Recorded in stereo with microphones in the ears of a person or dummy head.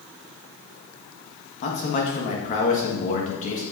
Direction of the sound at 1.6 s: 40° left (ahead or behind).